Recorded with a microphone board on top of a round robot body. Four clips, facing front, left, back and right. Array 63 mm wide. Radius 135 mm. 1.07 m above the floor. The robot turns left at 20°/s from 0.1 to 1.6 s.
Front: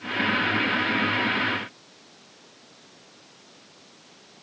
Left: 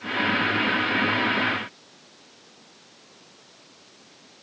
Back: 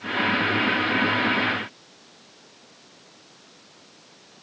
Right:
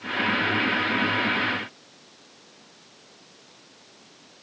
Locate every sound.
Only background noise.